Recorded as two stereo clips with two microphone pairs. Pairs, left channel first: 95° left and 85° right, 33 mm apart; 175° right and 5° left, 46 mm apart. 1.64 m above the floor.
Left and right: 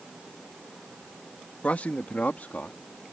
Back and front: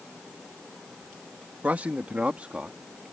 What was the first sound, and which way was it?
A man speaking, 55° left.